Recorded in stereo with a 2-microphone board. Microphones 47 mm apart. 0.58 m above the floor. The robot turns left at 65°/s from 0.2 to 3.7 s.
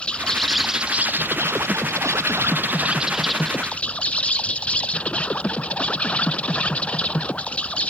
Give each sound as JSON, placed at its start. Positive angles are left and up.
{"t": 0.0, "sound": "an insect", "azimuth_deg": 20}